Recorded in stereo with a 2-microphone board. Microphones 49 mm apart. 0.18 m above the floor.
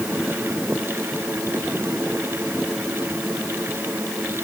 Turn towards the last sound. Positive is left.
No sound to turn to.